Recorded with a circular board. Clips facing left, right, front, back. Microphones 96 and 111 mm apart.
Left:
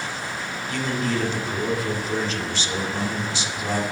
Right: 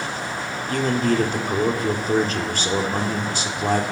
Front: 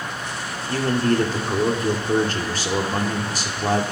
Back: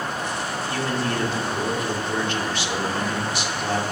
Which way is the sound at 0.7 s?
50° right.